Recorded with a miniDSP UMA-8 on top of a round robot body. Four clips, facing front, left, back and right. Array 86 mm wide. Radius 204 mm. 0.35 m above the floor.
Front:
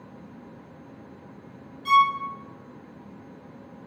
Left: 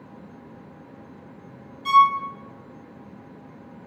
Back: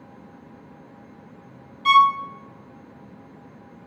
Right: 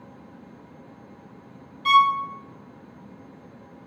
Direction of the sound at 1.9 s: 155° right.